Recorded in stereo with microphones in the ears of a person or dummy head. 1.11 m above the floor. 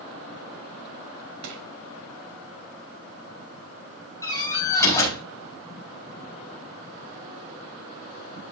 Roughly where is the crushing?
Right.